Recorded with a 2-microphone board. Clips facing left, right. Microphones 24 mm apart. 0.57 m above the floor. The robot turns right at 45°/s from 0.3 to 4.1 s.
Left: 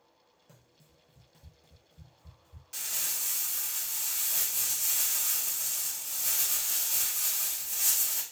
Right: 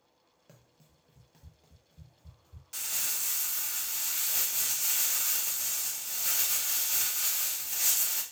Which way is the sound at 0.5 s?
30° right (ahead or behind).